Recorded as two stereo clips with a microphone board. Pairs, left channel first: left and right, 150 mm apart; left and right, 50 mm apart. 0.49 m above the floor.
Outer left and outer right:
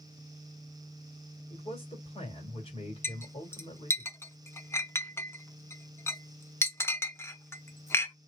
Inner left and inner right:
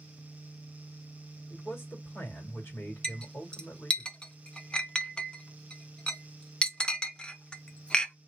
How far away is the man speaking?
About 1.9 m.